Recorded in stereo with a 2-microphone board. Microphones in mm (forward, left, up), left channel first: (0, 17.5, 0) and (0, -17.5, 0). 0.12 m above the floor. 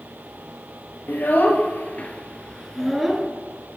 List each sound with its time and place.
1.1 s a child speaking: 65° left (ahead or behind), 1.5 m; by 3.3 s 10° right (ahead or behind), 0.9 m